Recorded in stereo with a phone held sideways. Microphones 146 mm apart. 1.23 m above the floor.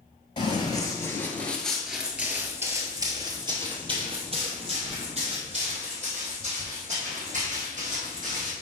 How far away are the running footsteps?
About 1.5 m.